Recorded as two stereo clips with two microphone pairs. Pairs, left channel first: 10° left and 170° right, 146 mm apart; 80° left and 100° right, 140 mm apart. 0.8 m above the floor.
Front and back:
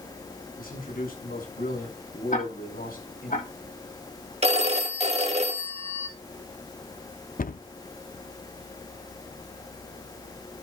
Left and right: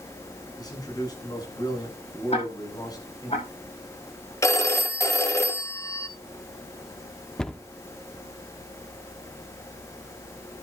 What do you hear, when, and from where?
0.6 s a man speaking: 15° left, 7 m
2.3 s ticking: 35° left, 8 m
4.4 s a phone ringing: 150° left, 1.4 m
7.4 s a cupboard door: 10° right, 0.7 m